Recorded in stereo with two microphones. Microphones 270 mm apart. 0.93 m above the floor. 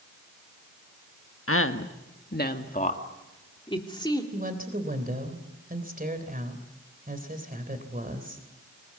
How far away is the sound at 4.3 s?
About 3 m.